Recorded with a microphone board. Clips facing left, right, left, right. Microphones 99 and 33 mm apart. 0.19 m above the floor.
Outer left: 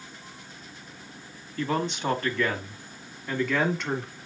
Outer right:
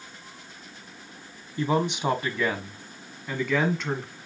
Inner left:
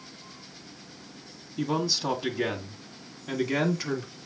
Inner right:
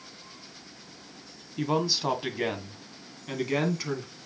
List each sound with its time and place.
1.6 s a man speaking: 15° right (ahead or behind), 1.6 m; by 4.2 s 5° left (ahead or behind), 2 m